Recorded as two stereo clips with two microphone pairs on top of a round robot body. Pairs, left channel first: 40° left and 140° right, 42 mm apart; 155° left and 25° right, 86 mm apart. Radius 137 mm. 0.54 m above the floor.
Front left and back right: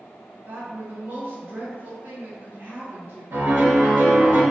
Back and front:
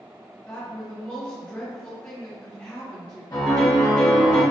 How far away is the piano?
About 1.4 m.